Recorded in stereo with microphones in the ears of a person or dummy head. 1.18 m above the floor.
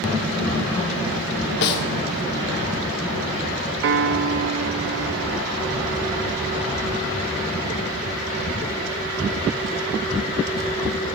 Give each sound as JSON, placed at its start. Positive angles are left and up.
{"t": 1.6, "sound": "a snare drum", "side_deg": 60, "distance_m": 0.9}
{"t": 3.8, "sound": "a piano", "side_deg": -55, "distance_m": 0.7}